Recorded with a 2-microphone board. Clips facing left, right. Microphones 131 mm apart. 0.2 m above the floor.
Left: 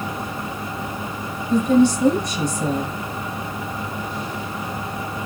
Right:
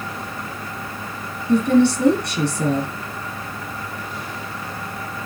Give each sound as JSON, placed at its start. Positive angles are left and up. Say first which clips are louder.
{"t": 1.5, "sound": "a woman speaking", "louder": "even", "side_deg": -70, "distance_m": 3.5}